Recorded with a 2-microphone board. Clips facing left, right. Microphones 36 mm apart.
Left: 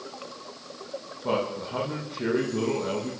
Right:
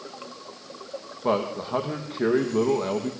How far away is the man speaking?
About 5 m.